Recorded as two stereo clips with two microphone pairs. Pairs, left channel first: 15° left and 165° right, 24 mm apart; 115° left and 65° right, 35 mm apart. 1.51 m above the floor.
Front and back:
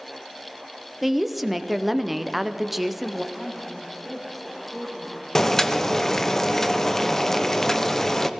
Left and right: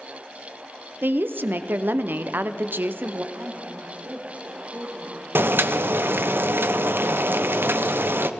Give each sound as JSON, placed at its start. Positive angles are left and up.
{"t": 1.0, "sound": "a woman speaking", "azimuth_deg": -80, "distance_m": 0.7}
{"t": 3.3, "sound": "a woman speaking", "azimuth_deg": -50, "distance_m": 3.5}
{"t": 5.3, "sound": "boiling", "azimuth_deg": -60, "distance_m": 0.7}